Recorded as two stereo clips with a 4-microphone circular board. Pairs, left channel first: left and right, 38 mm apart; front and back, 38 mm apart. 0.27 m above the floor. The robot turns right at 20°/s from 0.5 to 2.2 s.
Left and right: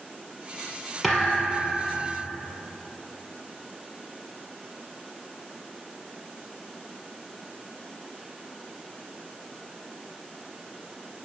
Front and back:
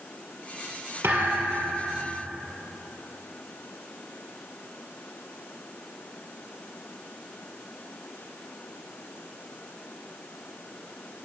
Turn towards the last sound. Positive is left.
turn(degrees=-160)